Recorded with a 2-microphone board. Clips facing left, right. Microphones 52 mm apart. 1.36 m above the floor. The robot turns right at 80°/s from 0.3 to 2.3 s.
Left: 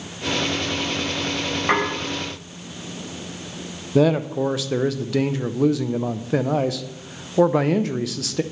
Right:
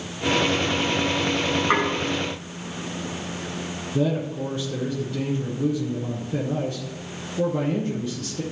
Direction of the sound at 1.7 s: 65° left (ahead or behind).